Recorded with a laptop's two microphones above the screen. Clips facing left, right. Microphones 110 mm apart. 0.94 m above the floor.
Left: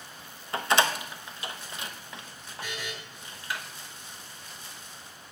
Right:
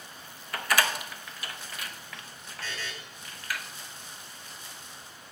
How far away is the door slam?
About 0.7 m.